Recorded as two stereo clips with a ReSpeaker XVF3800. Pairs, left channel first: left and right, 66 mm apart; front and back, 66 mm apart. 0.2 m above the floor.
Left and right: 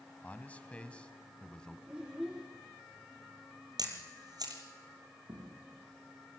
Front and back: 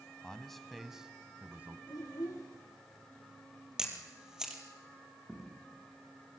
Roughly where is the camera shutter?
Right.